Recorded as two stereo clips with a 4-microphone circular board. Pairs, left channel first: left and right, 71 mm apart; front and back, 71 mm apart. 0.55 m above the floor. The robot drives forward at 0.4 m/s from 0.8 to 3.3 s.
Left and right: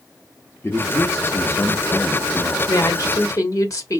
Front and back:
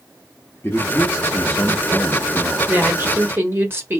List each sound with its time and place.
0.6 s a man speaking: 45° left, 1.1 m; by 2.6 s 105° left, 0.9 m
2.7 s a woman speaking: 115° left, 1.5 m; by 4.0 s 125° left, 1.6 m